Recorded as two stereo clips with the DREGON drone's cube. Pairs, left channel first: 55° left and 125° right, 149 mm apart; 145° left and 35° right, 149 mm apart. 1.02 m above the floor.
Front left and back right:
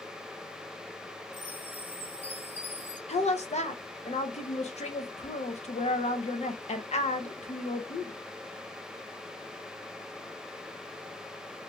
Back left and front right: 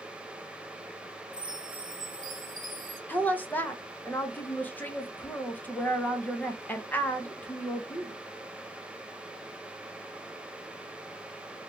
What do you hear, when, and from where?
1.3 s a chime: 50° right, 0.9 m
3.1 s a woman speaking: 70° left, 0.5 m